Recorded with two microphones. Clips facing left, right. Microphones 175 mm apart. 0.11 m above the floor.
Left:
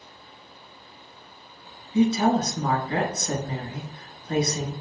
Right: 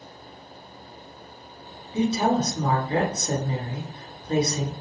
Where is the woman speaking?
25° right (ahead or behind), 1.2 m.